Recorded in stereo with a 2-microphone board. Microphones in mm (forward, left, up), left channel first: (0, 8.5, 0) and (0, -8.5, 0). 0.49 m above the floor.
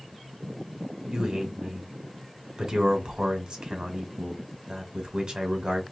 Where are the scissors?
I don't hear scissors.